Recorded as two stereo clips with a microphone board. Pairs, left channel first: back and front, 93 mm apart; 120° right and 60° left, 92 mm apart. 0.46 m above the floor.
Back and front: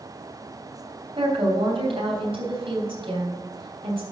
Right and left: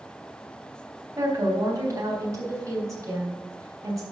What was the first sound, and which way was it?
A woman speaking, 10° left.